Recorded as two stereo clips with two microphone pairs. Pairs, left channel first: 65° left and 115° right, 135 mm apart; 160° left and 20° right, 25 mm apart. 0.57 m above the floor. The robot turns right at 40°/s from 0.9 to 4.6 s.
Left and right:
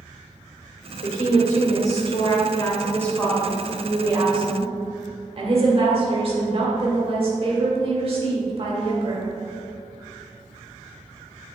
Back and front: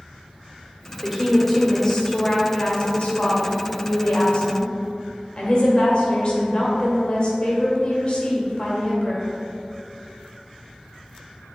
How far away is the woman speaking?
About 1.9 m.